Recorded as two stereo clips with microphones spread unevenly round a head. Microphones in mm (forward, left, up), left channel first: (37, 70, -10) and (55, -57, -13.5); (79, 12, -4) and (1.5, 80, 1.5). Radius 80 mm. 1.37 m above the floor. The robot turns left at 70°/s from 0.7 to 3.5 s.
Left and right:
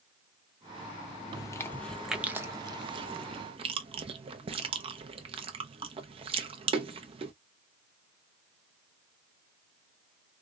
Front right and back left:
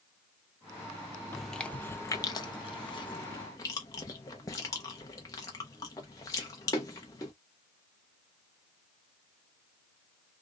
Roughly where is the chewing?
Ahead left.